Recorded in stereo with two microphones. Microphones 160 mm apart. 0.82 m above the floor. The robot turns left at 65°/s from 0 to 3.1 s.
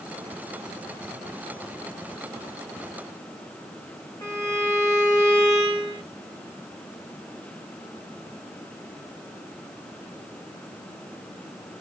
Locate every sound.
4.2 s a violin: 20° left (ahead or behind), 1.2 m